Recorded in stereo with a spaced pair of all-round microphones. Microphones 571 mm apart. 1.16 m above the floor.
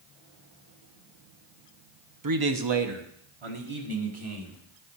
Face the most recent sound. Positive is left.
turn(degrees=-60)  # may be behind; listen again after turning